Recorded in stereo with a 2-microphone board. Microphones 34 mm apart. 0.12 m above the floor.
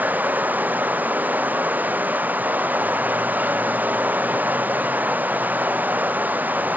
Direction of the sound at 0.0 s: 60° right (ahead or behind).